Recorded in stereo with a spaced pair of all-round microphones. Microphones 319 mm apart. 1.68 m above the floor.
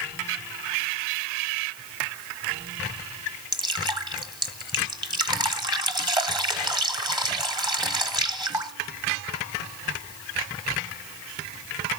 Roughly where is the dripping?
Centre.